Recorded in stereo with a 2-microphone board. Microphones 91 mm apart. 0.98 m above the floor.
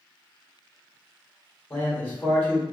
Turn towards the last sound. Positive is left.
turn(degrees=20)  # may be behind; listen again after turning